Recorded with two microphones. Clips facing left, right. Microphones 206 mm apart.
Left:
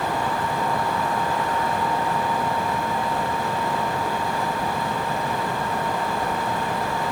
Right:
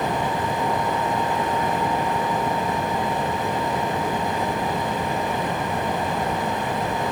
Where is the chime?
No chime in this recording.